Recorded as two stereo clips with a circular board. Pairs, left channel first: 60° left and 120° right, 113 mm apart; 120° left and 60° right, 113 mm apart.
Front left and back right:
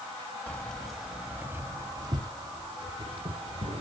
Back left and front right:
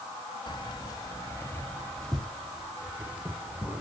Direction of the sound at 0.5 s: 130° left.